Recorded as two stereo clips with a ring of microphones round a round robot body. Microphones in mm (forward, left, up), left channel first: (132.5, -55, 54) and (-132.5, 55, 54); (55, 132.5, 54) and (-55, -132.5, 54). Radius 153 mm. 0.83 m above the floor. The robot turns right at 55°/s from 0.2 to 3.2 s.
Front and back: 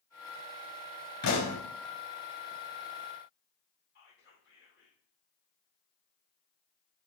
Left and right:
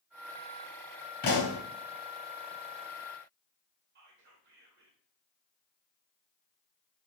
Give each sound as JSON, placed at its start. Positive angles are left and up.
{"t": 1.2, "sound": "a pop", "azimuth_deg": 10, "distance_m": 3.0}
{"t": 4.0, "sound": "whispering", "azimuth_deg": -65, "distance_m": 1.5}